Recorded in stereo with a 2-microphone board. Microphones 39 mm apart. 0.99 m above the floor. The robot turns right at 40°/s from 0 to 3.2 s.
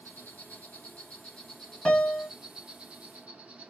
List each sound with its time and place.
0.0 s an insect: 95° left, 0.8 m; by 3.7 s 135° right, 0.8 m
1.9 s a piano: 20° left (ahead or behind), 1.2 m; by 2.3 s 40° left (ahead or behind), 1.2 m